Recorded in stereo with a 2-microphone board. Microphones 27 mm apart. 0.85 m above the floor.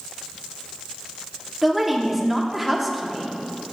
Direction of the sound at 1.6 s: 10° right (ahead or behind).